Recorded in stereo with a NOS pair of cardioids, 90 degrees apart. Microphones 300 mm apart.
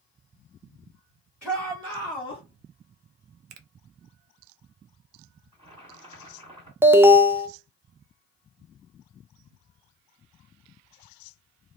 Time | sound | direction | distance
1.4 | a shout | 5° left | 1.8 m
3.5 | a finger snap | 65° right | 0.6 m
5.5 | boiling | 15° right | 1.6 m
6.8 | an alarm | 10° right | 0.5 m